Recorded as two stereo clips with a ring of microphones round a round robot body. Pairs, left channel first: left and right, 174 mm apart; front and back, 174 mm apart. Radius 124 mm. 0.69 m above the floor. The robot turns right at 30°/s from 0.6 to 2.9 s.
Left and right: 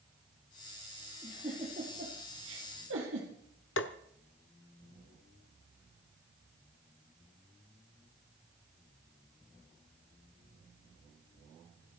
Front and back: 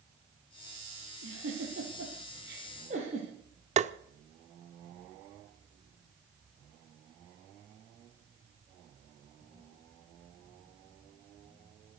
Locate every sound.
1.2 s a giggle: 165° right, 4 m; by 3.3 s 115° right, 4 m
3.8 s tapping: 130° left, 0.8 m